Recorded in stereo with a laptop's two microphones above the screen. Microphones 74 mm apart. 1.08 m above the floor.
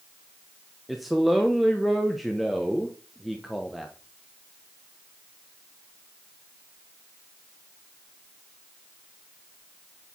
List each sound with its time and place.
0.9 s a man speaking: centre (ahead or behind), 0.5 m